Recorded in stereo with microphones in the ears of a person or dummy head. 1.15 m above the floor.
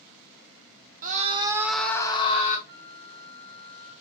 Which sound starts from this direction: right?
A scream, at 1.0 s.